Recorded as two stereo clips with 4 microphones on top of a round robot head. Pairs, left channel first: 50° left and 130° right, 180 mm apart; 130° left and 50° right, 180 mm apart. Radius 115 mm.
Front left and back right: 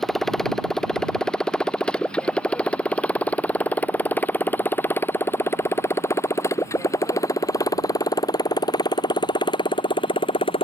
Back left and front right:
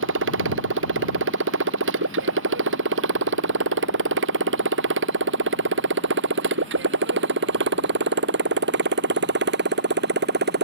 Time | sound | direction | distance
0.0 | a motorcycle | 40° right | ?